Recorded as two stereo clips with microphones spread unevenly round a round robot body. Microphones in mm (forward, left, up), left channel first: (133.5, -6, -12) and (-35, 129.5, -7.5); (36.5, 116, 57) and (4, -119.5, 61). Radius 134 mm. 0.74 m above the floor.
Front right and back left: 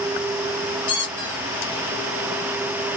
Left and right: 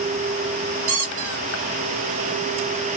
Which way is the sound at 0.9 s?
105° right.